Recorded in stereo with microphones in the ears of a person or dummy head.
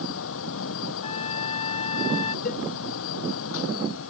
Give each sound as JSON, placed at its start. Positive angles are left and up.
{"t": 0.0, "sound": "a fan", "side_deg": 85}
{"t": 1.0, "sound": "a trumpet", "side_deg": 30}
{"t": 2.5, "sound": "a cowbell", "side_deg": 55}